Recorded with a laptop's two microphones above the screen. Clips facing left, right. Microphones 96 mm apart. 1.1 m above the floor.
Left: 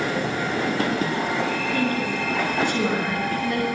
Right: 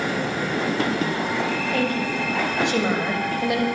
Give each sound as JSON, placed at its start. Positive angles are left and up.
{"t": 1.7, "sound": "a woman speaking", "side_deg": -70, "distance_m": 7.0}